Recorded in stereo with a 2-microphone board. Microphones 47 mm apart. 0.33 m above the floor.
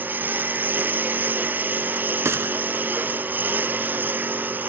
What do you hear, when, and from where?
0.0 s a lawn mower: 40° right (ahead or behind)
2.2 s a gunshot: 70° right (ahead or behind)